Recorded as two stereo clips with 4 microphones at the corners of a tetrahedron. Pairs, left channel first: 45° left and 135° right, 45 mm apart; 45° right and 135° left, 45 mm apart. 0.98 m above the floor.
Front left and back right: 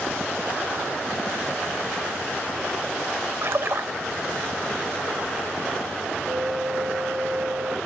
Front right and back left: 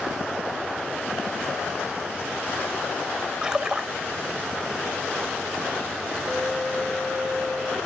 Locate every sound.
3.4 s a splash: 155° right, 1.3 m
6.3 s a flute: 130° right, 1.5 m